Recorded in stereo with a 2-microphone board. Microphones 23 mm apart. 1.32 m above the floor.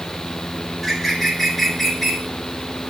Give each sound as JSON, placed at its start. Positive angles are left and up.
{"t": 0.7, "sound": "a bird", "side_deg": 10, "distance_m": 3.0}